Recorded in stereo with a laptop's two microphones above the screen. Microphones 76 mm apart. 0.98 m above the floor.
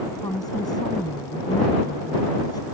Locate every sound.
0.2 s a woman speaking: 60° left (ahead or behind)